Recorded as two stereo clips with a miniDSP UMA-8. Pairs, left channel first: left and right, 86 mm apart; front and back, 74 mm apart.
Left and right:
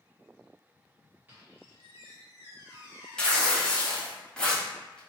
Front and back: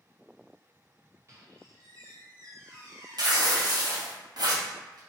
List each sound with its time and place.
1.3 s a squeak: 155° right, 0.9 m
3.2 s tearing paper: 170° left, 0.7 m